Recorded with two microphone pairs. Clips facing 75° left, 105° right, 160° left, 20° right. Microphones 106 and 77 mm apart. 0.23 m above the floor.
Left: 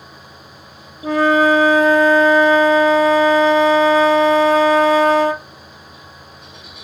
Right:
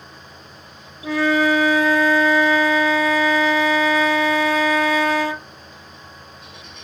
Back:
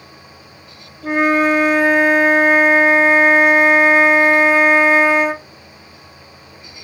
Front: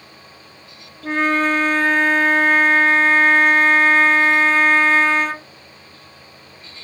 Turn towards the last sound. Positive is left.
turn(degrees=90)